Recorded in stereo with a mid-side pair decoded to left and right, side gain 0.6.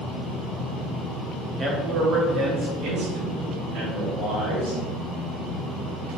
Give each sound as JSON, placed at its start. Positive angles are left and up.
{"t": 1.6, "sound": "a man speaking", "azimuth_deg": -30, "distance_m": 1.5}